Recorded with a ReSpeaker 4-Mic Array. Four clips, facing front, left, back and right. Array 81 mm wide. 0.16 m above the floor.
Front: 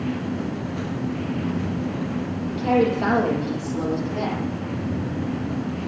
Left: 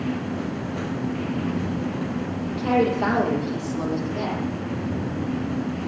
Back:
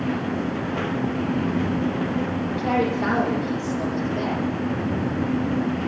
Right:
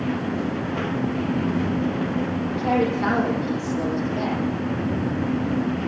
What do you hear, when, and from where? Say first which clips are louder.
2.5 s a woman speaking: left 2 dB, front 4 dB; 50° left, 5.5 m; by 4.4 s 35° left, 7 m